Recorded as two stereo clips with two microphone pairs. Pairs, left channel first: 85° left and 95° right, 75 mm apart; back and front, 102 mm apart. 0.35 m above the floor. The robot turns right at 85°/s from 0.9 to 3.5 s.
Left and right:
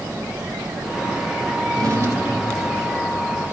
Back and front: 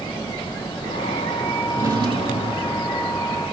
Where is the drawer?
75° right, 3.5 m; by 2.8 s 20° left, 3.5 m.